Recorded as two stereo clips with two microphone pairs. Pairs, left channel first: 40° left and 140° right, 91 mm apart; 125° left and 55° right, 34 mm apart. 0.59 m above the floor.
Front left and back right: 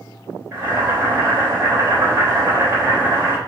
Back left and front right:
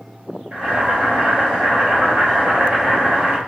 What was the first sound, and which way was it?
Boiling, 85° right.